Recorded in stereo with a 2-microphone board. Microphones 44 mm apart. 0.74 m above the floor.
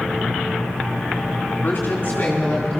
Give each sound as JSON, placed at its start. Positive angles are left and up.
{"t": 1.6, "sound": "a woman speaking", "side_deg": 55, "distance_m": 1.6}